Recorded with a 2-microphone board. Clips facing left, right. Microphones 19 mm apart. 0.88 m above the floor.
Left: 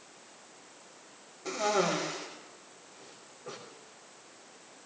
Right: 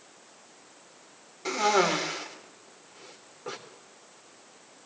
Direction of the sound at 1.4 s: 65° right (ahead or behind).